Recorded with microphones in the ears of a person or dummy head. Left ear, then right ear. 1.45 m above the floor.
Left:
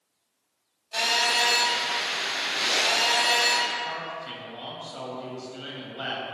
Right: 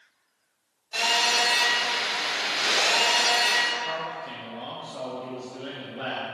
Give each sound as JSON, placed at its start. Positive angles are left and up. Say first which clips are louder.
{"t": 0.9, "sound": "a phone buzzing", "louder": "right 1 dB", "side_deg": 5, "distance_m": 1.6}
{"t": 3.9, "sound": "a man speaking", "louder": "right 2 dB", "side_deg": 20, "distance_m": 0.9}